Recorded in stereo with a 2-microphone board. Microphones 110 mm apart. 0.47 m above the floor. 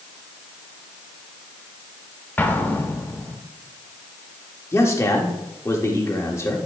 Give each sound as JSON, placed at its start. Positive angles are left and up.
{"t": 2.4, "sound": "an explosion", "side_deg": 15, "distance_m": 0.8}
{"t": 4.7, "sound": "a man speaking", "side_deg": 25, "distance_m": 1.2}